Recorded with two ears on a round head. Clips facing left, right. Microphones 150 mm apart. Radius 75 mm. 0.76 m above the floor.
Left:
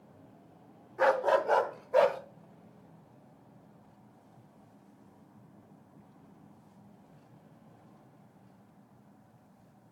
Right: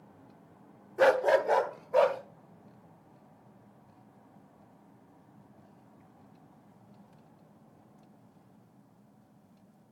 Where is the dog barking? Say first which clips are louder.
Right 3 dB; 40° right (ahead or behind), 0.8 m; by 2.2 s 10° left (ahead or behind), 1.6 m.